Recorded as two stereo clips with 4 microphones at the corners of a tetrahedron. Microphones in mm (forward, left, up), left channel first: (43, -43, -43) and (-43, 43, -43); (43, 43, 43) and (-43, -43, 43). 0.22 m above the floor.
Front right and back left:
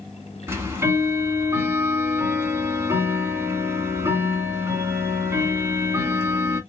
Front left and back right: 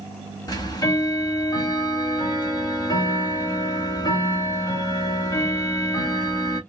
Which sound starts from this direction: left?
Ticking, at 0.5 s.